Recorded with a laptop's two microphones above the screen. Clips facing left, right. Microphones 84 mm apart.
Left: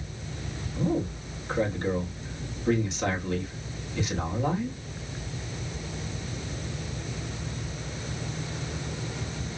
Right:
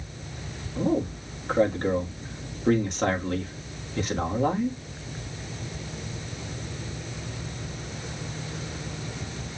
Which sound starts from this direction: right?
A man speaking, at 0.8 s.